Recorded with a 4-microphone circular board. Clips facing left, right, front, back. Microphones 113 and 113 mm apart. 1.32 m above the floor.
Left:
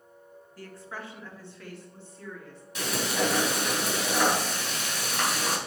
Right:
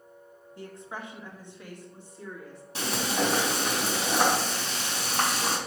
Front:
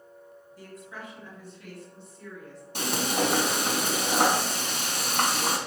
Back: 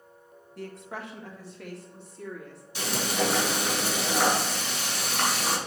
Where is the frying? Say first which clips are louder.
Even, front 1 dB; 35° right, 3.5 m.